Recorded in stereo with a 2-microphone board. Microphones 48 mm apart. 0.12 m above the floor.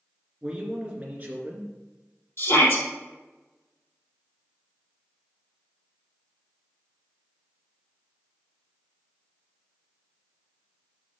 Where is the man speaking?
15° right (ahead or behind), 2.0 m; by 1.8 s 40° right (ahead or behind), 2 m.